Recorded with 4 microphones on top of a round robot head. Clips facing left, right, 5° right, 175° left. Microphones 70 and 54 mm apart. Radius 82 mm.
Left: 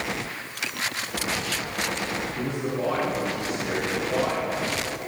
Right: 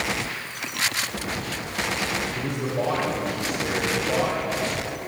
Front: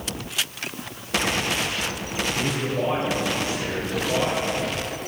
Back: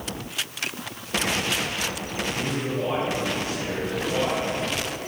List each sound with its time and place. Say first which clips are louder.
2.4 s a man speaking: right 1 dB, front 2 dB; 65° right, 4 m